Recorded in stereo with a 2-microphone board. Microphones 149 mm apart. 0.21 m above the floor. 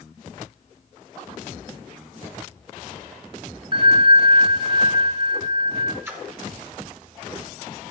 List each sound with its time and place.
3.7 s a bell: 35° right (ahead or behind), 1.5 m
6.0 s a splash: 15° right (ahead or behind), 0.9 m